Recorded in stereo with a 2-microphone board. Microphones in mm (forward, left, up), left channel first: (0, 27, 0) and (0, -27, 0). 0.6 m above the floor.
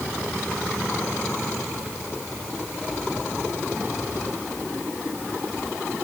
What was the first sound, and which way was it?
Only background noise.